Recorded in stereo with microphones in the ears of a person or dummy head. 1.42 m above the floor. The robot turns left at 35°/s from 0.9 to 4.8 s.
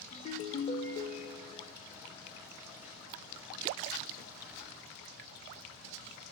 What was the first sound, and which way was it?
A ringtone, 35° left (ahead or behind).